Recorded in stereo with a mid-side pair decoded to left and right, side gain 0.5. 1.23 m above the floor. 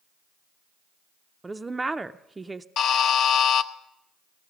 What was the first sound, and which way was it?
A woman speaking, 20° right.